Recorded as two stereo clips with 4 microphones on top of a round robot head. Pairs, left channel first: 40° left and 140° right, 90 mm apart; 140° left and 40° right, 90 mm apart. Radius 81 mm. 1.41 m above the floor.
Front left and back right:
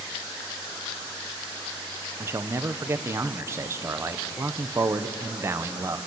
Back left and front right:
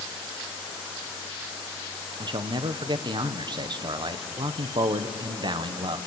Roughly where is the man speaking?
Right.